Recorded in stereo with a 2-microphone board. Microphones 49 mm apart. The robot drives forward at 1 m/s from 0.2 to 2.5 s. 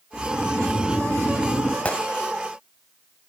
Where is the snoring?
45° left (ahead or behind), 2.5 m; by 1.8 s 70° left (ahead or behind), 2.0 m.